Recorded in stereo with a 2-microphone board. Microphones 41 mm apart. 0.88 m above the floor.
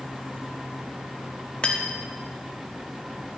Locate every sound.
1.6 s cutlery clinking: 30° left (ahead or behind), 0.7 m